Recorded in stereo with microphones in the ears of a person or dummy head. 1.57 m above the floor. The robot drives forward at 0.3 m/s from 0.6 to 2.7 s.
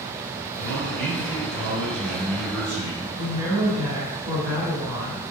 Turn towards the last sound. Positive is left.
turn(degrees=-15)  # may be behind; listen again after turning